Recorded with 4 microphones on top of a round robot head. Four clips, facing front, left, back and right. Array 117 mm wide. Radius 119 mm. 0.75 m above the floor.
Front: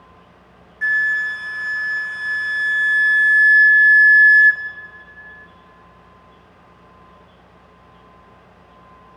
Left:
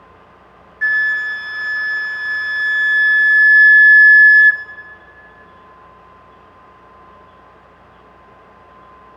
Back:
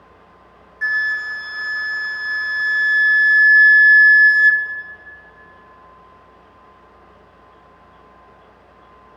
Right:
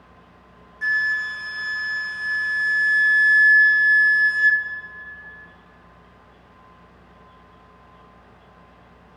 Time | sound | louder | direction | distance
0.8 | a flute | left 6 dB, front 2 dB | 110° left | 0.7 m